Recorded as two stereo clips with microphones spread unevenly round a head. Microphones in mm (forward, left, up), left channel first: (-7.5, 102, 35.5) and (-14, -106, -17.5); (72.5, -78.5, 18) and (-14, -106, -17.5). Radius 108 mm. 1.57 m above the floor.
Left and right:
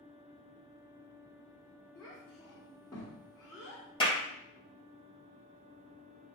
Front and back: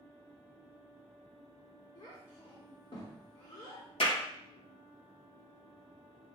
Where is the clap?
20° left, 2.5 m.